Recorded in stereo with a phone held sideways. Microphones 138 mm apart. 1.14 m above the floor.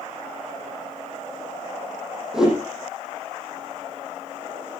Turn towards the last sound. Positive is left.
turn(degrees=-5)  # may be behind; listen again after turning